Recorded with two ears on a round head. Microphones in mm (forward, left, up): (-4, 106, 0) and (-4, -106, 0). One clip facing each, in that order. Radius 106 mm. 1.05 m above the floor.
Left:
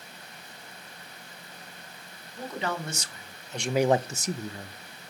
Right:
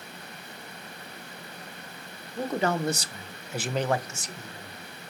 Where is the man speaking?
45° right (ahead or behind), 1.3 m; by 5.1 s 70° left (ahead or behind), 1.0 m.